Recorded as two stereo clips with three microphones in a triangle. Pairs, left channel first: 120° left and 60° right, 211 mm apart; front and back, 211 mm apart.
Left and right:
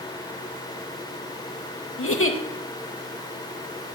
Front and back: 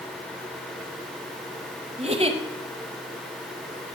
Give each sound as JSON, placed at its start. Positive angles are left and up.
{"t": 2.0, "sound": "a giggle", "azimuth_deg": 120, "distance_m": 1.0}